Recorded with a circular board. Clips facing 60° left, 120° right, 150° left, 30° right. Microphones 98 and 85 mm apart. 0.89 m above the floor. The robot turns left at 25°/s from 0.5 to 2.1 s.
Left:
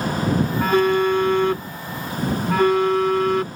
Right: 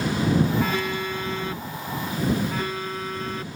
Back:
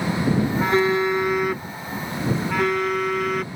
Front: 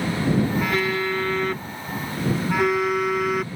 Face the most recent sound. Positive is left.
turn(degrees=55)